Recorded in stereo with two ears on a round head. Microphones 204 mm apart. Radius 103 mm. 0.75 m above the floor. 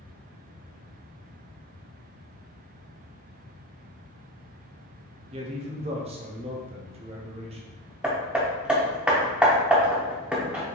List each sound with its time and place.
5.3 s a man speaking: 25° right (ahead or behind), 0.6 m
8.0 s hammering: 5° right (ahead or behind), 0.6 m